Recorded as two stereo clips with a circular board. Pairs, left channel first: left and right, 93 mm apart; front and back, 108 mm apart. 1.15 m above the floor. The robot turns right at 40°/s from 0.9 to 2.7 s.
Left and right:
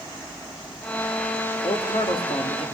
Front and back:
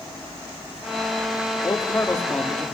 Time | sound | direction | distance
1.6 | a man speaking | 55° left | 2.5 m